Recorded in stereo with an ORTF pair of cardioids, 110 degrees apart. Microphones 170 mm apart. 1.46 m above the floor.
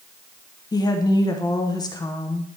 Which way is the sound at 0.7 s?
20° left.